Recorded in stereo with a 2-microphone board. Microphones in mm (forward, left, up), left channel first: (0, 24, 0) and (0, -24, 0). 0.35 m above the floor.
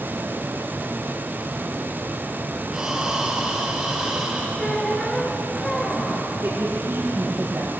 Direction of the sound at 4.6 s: 5° left (ahead or behind).